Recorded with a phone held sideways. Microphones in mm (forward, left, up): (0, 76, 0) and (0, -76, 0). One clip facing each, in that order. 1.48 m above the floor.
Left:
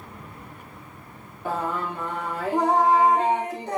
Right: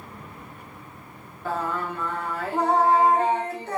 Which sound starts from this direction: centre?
Singing, at 1.4 s.